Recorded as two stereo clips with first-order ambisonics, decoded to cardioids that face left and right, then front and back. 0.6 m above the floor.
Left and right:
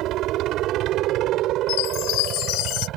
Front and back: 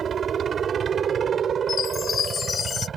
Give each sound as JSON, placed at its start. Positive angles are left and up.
{"t": 0.0, "sound": "a helicopter", "azimuth_deg": -120}
{"t": 1.7, "sound": "a chime", "azimuth_deg": 65}